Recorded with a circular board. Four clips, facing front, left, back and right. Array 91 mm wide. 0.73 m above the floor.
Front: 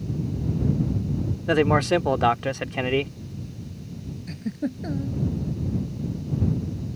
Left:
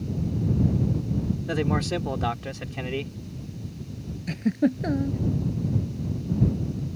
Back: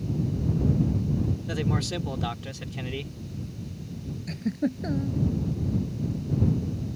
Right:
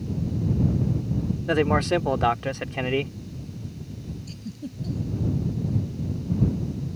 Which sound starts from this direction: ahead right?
A man speaking, at 1.5 s.